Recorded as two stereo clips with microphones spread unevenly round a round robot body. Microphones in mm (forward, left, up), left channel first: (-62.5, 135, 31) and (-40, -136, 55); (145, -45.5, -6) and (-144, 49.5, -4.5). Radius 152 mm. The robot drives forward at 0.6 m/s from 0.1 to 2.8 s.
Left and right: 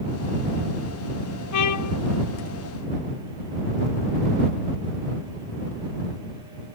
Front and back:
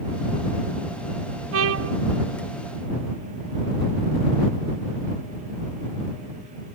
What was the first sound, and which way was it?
A trumpet, 115° left.